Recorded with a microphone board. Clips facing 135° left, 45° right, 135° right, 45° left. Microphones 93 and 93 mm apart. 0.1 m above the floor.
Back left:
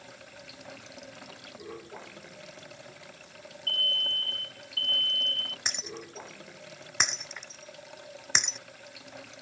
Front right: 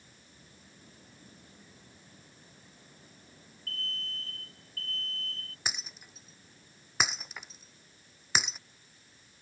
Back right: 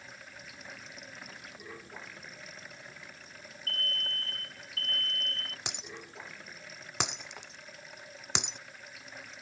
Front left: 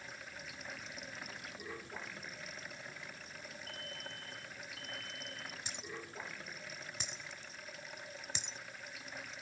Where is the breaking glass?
130° right.